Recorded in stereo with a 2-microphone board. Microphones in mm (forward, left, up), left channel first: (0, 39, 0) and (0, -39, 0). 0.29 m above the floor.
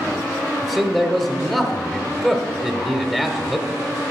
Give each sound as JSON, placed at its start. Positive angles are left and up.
{"t": 0.6, "sound": "a man speaking", "side_deg": 5, "distance_m": 0.9}